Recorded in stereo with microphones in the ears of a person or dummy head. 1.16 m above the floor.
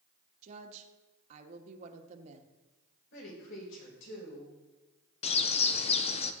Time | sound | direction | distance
0.4 | a woman speaking | 40° right (ahead or behind) | 1.3 m
3.1 | a woman speaking | 65° left (ahead or behind) | 6 m
5.2 | a bird | 35° left (ahead or behind) | 0.7 m